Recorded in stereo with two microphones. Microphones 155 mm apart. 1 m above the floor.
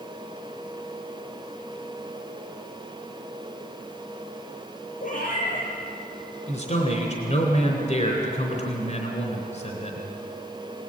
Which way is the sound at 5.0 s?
55° left (ahead or behind).